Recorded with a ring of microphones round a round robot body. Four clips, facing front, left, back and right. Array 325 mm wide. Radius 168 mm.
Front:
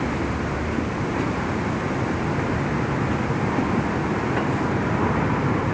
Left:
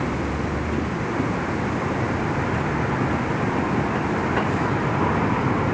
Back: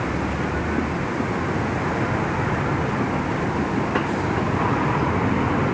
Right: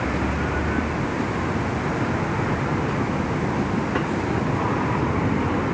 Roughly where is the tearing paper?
I don't hear tearing paper.